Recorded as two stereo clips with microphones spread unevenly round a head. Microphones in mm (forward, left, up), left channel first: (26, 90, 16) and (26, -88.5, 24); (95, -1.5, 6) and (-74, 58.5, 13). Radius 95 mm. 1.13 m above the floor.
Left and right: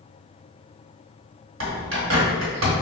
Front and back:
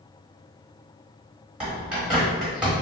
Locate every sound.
1.6 s a bird: 115° right, 1.2 m